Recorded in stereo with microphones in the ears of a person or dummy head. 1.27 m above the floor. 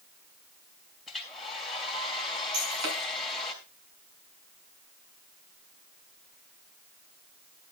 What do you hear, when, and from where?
1.1 s a hair dryer: centre (ahead or behind), 3 m
2.5 s breaking glass: 70° right (ahead or behind), 7 m